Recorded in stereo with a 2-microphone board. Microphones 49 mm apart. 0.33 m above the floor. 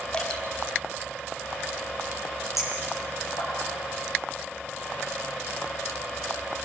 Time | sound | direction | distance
0.1 | dripping | 25° left (ahead or behind) | 4.5 m
2.6 | a clink | 85° left | 7.5 m